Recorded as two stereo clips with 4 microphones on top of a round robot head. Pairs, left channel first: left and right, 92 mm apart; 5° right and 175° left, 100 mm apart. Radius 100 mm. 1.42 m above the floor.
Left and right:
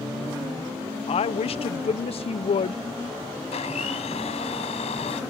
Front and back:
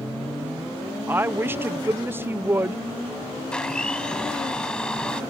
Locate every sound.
1.1 s a woman speaking: 105° left
3.5 s a blender: 75° left